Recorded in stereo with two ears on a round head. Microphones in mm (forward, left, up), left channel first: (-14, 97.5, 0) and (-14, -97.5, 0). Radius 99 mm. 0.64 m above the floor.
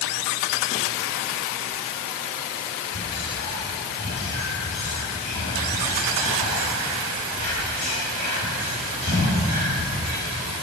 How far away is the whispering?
About 2.5 m.